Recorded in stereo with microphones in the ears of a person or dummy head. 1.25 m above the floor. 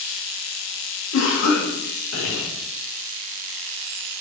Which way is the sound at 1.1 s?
70° left (ahead or behind).